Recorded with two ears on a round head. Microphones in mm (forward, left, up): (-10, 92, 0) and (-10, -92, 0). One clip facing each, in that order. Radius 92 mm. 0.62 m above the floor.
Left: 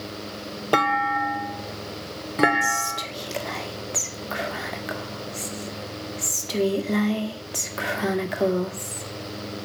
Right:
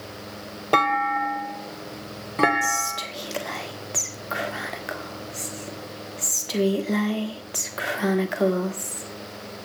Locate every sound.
0.7 s a clunk: 5° left (ahead or behind), 0.7 m
2.6 s whispering: centre (ahead or behind), 1.6 m